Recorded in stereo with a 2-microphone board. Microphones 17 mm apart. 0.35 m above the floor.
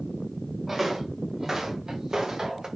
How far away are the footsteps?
About 2.5 m.